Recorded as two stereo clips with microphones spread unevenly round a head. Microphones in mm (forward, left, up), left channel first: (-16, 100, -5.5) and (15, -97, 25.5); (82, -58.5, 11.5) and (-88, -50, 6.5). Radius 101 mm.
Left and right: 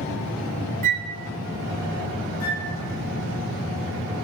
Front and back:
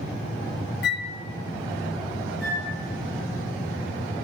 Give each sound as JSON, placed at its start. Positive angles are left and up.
{"t": 0.8, "sound": "a flute", "azimuth_deg": -25, "distance_m": 0.6}
{"t": 2.4, "sound": "a flute", "azimuth_deg": 90, "distance_m": 2.5}